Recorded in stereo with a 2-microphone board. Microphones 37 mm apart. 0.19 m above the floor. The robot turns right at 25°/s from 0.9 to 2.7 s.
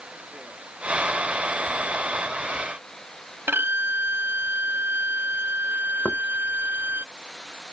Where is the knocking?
65° left (ahead or behind).